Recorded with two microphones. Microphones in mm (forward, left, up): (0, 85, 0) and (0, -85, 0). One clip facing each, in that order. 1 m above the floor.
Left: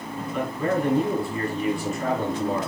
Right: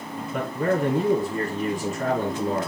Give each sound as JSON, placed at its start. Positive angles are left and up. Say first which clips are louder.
{"t": 0.3, "sound": "a man speaking", "louder": "right 1 dB", "side_deg": -45, "distance_m": 6.0}